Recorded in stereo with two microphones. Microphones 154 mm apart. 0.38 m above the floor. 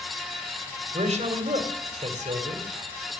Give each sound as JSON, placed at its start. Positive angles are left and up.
{"t": 0.9, "sound": "a man speaking", "side_deg": -45, "distance_m": 2.0}